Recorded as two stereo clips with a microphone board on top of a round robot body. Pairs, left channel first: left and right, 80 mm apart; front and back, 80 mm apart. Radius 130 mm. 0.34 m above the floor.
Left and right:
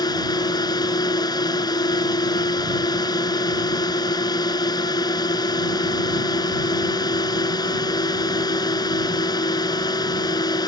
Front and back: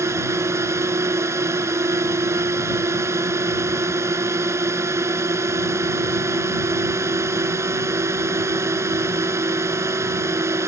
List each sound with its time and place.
0.0 s a drone: 125° left